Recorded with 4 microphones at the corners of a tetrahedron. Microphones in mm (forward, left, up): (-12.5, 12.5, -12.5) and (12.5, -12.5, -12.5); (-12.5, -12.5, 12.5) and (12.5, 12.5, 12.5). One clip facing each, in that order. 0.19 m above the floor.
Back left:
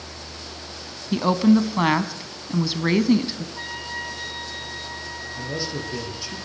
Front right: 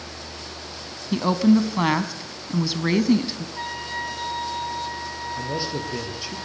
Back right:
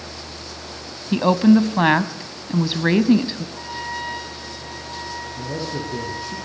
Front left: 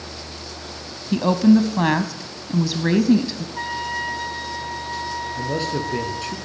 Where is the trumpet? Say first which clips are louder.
Front right 4 dB, front left 7 dB; 40° left, 5.5 m.